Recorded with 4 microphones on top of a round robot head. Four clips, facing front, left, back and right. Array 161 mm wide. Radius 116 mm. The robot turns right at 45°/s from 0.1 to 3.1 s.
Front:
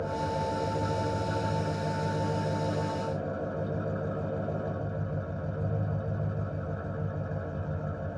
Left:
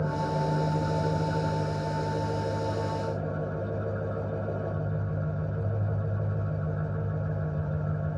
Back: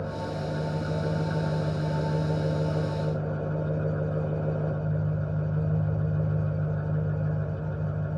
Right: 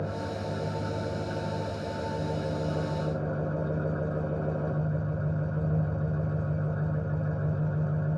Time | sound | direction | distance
0.0 | an engine running | 110° left | 5.5 m